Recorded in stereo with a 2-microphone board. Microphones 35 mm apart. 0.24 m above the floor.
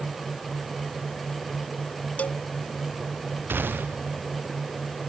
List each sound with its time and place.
2.2 s a cowbell: 45° left (ahead or behind)
3.5 s a gunshot: 85° right